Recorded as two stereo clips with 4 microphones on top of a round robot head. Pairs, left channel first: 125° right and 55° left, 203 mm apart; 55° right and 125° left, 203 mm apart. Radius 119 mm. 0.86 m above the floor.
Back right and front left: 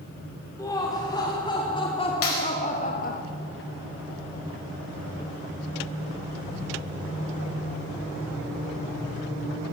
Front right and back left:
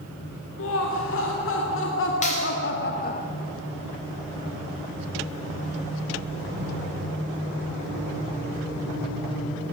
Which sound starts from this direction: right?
A clap, at 2.2 s.